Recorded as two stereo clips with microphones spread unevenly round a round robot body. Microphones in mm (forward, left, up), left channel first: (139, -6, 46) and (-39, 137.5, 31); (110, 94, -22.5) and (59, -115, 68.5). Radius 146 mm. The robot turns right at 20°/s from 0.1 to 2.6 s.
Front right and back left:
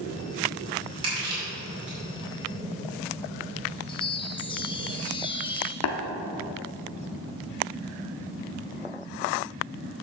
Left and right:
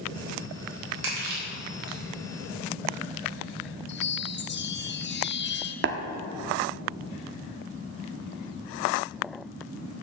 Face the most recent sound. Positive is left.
turn(degrees=-55)